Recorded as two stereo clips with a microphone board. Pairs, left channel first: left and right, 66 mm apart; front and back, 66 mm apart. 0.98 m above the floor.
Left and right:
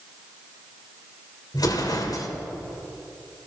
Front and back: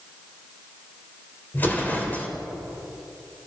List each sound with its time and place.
1.5 s an explosion: 65° left, 2.5 m